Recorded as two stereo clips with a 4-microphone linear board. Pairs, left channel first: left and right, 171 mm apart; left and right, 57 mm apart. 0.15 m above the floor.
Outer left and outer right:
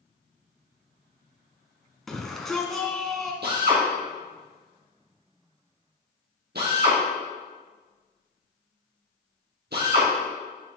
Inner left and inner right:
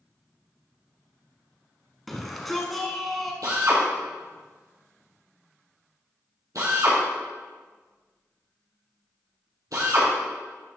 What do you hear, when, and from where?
2.1 s a shout: centre (ahead or behind), 1.2 m
3.4 s a drill: 75° right (ahead or behind), 3.5 m